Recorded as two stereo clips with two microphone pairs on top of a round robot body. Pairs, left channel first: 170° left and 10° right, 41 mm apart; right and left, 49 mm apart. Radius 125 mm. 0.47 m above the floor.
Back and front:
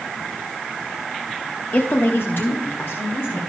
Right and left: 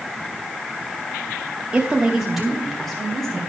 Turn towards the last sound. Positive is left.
turn(degrees=-165)